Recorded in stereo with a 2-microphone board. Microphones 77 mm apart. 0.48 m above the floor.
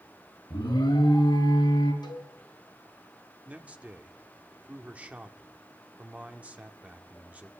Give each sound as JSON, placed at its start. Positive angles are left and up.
{"t": 0.5, "sound": "an alarm", "side_deg": 85, "distance_m": 3.5}
{"t": 2.0, "sound": "a cowbell", "side_deg": 70, "distance_m": 4.5}
{"t": 3.5, "sound": "a man speaking", "side_deg": -20, "distance_m": 1.4}